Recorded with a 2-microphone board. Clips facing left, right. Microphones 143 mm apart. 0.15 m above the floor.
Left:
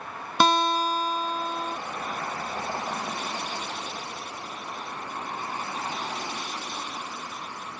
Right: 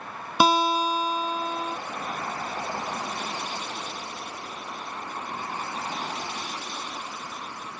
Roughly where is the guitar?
Centre.